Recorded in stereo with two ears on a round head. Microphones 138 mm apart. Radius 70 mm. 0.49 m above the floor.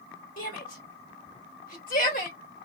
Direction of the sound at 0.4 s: 60° left (ahead or behind).